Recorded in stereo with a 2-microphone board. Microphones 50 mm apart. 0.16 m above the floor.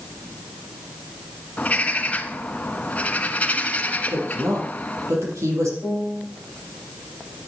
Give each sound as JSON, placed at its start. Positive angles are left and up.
{"t": 1.6, "sound": "a bird", "side_deg": 25, "distance_m": 1.1}
{"t": 4.1, "sound": "a woman speaking", "side_deg": -75, "distance_m": 6.0}
{"t": 5.8, "sound": "a piano", "side_deg": -30, "distance_m": 3.5}